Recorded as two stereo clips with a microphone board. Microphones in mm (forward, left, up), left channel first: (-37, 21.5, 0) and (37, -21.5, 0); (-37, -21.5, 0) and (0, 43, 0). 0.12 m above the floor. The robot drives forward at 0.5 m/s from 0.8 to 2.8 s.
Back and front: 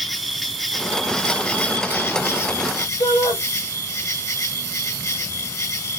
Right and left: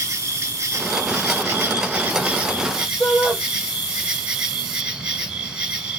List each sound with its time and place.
0.0 s an insect: 65° left, 1.3 m; by 6.0 s 135° left, 1.5 m
3.0 s a shout: 155° left, 4.5 m